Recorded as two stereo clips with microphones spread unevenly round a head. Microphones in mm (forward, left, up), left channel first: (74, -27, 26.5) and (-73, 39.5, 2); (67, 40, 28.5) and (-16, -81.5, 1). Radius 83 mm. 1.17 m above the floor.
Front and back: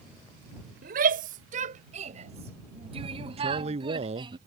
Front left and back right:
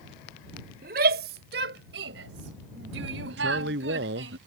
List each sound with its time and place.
0.8 s a shout: 165° right; by 4.4 s 140° right
3.4 s a man speaking: 150° right